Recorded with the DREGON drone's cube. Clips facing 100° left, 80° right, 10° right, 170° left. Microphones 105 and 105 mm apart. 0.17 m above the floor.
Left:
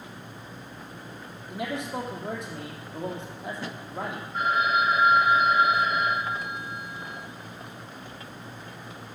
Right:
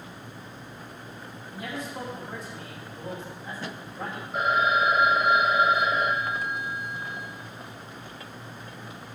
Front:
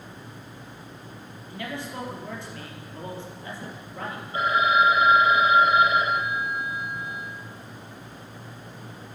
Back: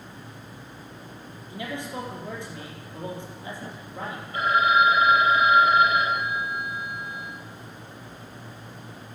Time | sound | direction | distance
1.5 | a man speaking | 95° left | 3.5 m
4.3 | a phone ringing | 75° right | 4 m